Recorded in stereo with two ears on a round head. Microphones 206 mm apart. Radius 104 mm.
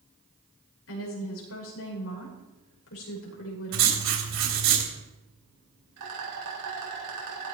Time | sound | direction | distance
0.9 | a woman speaking | 65° left (ahead or behind) | 6.5 m
3.7 | writing | 50° right (ahead or behind) | 3.5 m
6.0 | a rattle | 80° right | 5 m